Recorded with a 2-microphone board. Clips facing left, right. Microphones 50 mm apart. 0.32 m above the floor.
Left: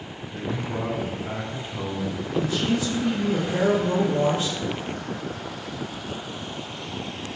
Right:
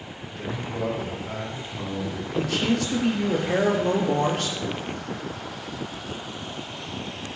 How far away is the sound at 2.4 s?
About 5.5 m.